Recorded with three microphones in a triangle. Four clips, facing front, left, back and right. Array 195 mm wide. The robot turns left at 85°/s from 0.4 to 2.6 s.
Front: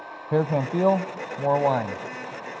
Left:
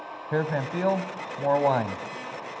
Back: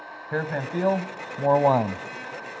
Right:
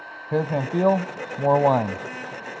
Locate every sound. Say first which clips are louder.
0.3 s a man speaking: right 4 dB, front 5 dB; 15° right, 1.0 m; by 2.0 s 155° right, 1.0 m